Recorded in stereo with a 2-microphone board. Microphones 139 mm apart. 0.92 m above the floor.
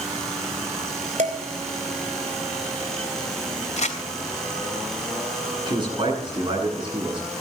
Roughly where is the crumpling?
Left.